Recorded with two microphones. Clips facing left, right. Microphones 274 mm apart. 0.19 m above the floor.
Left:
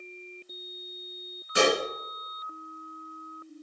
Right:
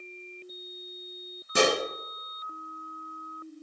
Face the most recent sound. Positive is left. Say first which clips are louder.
# left 1 dB
turn(degrees=-55)  # may be behind; listen again after turning